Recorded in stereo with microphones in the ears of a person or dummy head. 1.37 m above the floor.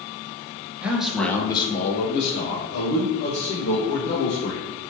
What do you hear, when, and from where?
0.8 s a man speaking: 10° right (ahead or behind), 1.0 m; by 4.7 s 80° left, 2.5 m